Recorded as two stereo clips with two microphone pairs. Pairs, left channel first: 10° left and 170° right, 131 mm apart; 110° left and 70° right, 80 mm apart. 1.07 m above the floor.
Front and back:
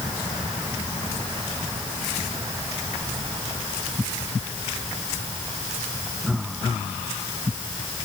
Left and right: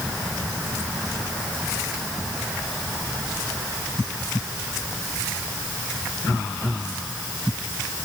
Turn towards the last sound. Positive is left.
No sound to turn to.